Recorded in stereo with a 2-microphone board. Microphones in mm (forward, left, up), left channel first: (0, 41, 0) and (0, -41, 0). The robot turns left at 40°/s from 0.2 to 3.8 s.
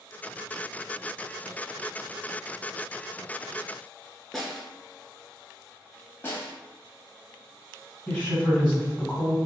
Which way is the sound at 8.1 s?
15° left (ahead or behind).